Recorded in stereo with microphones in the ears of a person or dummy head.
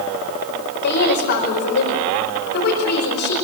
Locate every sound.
0.8 s a woman speaking: 55° left (ahead or behind), 5 m